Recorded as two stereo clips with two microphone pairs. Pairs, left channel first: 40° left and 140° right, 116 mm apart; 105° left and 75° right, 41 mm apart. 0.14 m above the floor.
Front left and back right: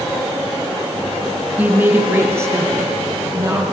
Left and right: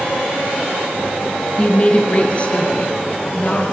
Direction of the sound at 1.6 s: 150° left.